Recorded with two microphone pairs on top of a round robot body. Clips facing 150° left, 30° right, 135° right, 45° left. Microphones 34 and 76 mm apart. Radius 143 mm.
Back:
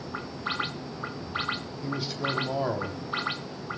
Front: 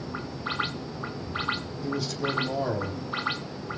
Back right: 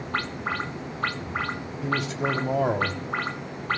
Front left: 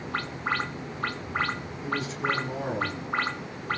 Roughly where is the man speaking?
Behind right.